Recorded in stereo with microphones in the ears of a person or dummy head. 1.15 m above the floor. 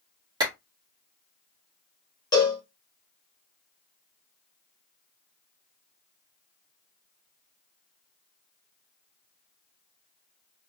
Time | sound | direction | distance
0.4 | a clap | 20° right (ahead or behind) | 1.5 m
2.3 | a cowbell | 20° left (ahead or behind) | 1.2 m